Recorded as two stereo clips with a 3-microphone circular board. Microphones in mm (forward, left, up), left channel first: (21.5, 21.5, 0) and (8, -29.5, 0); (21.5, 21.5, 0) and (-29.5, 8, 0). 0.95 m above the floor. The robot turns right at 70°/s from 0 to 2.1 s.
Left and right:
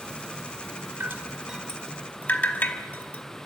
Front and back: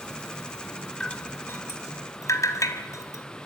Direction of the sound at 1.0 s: 55° right.